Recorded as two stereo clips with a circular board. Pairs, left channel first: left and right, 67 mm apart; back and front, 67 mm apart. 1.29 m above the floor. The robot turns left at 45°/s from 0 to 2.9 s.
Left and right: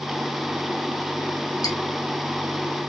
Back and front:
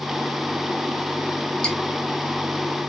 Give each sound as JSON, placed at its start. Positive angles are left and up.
{"t": 1.6, "sound": "dripping", "azimuth_deg": 105, "distance_m": 1.0}